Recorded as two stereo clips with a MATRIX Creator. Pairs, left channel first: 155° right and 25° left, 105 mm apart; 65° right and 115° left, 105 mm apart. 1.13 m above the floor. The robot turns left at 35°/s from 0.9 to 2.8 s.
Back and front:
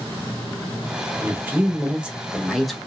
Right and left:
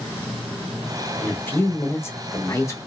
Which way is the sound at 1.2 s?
15° right.